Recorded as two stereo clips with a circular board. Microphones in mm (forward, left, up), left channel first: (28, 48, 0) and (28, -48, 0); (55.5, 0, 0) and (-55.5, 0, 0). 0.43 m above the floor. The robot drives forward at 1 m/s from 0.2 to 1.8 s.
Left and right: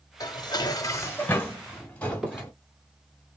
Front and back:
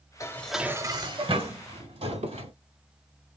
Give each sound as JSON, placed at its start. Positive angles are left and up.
{"t": 0.2, "sound": "dishes clattering", "azimuth_deg": 50, "distance_m": 0.6}
{"t": 2.1, "sound": "a squeak", "azimuth_deg": -175, "distance_m": 1.0}